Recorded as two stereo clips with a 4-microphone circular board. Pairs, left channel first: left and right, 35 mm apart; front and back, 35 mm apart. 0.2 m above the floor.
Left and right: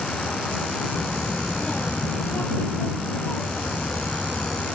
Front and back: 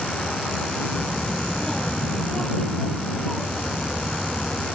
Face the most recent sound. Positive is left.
turn(degrees=90)